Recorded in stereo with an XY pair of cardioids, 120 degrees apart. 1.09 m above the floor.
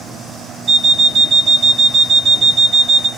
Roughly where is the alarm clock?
Ahead right.